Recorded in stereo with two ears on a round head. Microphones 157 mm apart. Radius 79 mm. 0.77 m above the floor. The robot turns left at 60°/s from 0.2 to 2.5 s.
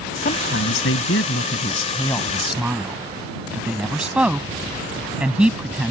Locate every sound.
0.2 s a woman speaking: 130° left; by 5.9 s 5° right